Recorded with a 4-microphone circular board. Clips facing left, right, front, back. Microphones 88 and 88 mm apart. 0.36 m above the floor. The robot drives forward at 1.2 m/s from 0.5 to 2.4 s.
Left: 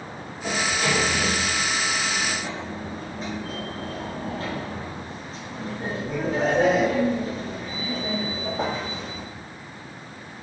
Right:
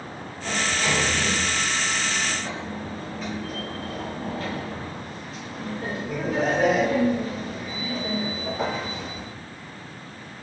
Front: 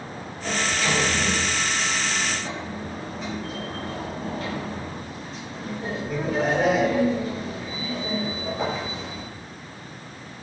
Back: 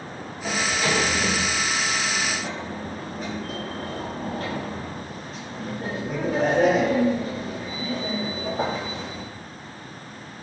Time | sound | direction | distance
0.4 | a sliding door | 110° left | 2.5 m